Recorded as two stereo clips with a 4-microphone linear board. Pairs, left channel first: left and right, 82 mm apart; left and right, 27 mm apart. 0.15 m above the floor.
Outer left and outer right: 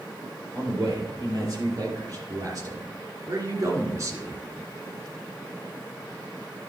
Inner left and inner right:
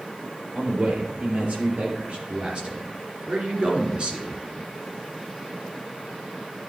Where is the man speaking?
45° right (ahead or behind), 3.5 m; by 4.4 s 35° right (ahead or behind), 1.9 m.